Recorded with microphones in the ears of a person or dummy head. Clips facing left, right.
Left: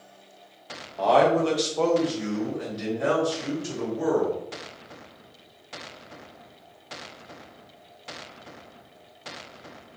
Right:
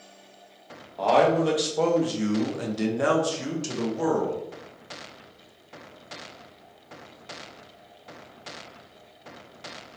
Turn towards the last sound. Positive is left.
turn(degrees=-80)